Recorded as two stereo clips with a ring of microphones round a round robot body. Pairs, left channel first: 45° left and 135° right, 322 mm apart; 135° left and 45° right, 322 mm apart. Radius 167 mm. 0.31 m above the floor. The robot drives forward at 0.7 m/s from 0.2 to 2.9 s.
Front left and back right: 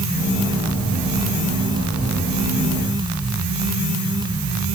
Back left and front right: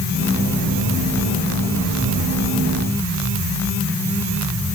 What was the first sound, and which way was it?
Only background noise.